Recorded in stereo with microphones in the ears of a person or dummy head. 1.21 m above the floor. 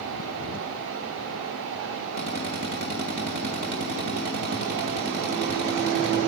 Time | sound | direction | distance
2.2 | a drill | 55° right (ahead or behind) | 4 m